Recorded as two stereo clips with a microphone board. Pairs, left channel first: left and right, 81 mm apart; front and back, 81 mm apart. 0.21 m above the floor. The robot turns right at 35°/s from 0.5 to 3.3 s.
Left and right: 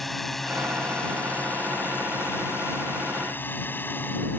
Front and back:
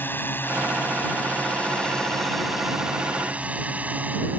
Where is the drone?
5° left; by 4.4 s 130° left.